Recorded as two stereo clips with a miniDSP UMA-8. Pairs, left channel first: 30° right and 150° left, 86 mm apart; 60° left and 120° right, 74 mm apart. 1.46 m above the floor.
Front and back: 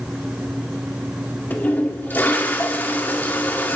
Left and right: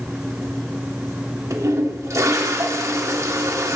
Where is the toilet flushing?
90° right, 1.5 m.